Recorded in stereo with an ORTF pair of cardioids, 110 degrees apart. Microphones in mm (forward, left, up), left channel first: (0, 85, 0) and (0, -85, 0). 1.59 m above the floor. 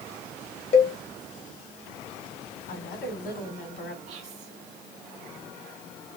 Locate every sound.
0.7 s a cowbell: 40° left, 1.4 m
2.7 s a woman speaking: 60° left, 3 m
4.1 s whispering: 60° right, 0.9 m